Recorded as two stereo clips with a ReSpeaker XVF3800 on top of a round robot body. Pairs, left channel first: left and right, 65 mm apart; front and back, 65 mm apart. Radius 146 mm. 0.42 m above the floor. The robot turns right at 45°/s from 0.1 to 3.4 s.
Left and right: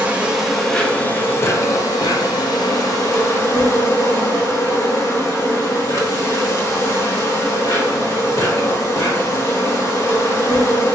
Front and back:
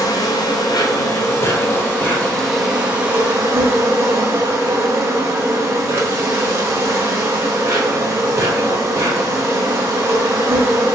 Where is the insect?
20° right, 1.1 m; by 10.9 s 130° left, 1.1 m.